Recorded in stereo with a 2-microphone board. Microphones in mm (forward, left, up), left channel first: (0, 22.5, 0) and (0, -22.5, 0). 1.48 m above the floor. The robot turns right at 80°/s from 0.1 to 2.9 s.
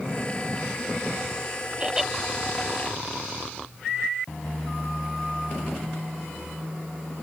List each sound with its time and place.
1.8 s laughter: 25° right (ahead or behind); by 2.1 s centre (ahead or behind)